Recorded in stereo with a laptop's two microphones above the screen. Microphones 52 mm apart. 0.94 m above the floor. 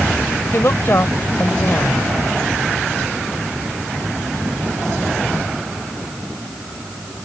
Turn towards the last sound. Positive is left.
turn(degrees=50)  # may be behind; listen again after turning